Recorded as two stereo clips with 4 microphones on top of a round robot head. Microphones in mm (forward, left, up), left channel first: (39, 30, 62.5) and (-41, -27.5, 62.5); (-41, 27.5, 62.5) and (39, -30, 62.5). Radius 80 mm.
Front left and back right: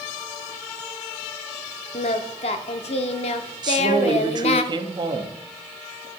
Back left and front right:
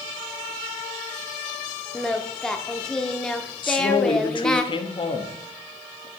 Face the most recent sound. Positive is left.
turn(degrees=175)